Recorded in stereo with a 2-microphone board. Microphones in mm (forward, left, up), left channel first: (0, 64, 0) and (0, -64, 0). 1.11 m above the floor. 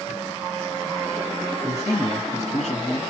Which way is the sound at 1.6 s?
55° left (ahead or behind).